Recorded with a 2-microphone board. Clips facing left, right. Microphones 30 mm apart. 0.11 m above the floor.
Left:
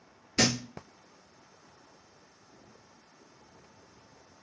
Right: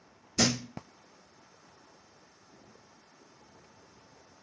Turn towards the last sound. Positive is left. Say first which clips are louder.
# left 1 dB
turn(degrees=45)  # may be behind; listen again after turning